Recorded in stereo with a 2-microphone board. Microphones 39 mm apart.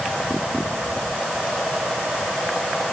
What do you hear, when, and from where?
Only background noise.